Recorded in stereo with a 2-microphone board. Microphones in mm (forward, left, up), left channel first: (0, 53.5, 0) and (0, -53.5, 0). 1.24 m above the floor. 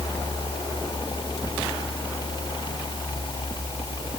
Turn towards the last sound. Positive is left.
No sound to turn to.